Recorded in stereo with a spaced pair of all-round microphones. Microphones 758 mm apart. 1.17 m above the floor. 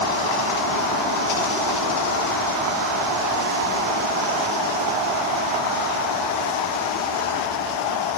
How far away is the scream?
I don't hear a scream.